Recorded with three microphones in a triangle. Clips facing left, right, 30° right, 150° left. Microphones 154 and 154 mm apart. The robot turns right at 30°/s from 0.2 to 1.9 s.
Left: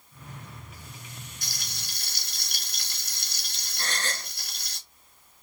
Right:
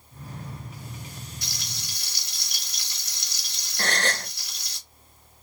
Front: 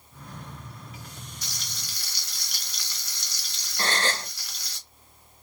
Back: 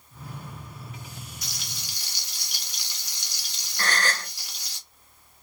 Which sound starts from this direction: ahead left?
Frying, at 1.4 s.